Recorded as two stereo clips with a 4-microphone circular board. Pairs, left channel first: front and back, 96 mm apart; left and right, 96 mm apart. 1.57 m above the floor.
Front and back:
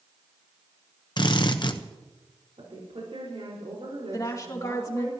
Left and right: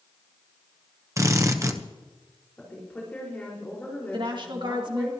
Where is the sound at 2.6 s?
165° left, 5 m.